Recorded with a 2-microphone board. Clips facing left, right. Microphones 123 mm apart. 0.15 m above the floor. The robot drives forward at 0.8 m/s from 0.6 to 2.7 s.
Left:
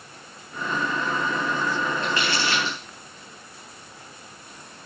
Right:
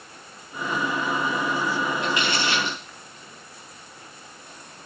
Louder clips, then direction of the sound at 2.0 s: Right 1 dB; 20° right (ahead or behind).